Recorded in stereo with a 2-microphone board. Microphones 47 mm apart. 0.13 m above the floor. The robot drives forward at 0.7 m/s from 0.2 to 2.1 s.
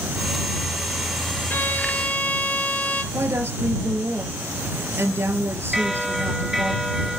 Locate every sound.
1.5 s a violin: 40° left (ahead or behind), 0.7 m; by 3.0 s 30° left (ahead or behind), 0.9 m
3.1 s a woman speaking: 55° right (ahead or behind), 3 m
5.7 s a bell: 5° right (ahead or behind), 1.2 m